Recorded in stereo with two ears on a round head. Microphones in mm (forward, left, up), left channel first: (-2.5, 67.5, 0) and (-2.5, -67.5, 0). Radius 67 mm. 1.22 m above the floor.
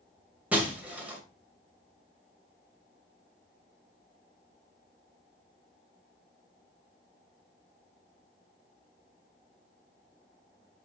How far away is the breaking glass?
About 2 m.